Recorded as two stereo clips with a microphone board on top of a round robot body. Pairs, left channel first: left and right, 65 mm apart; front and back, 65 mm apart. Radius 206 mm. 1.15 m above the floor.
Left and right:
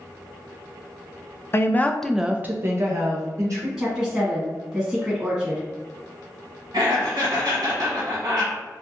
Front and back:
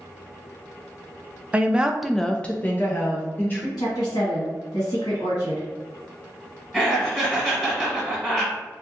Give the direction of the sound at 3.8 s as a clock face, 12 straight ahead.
12 o'clock.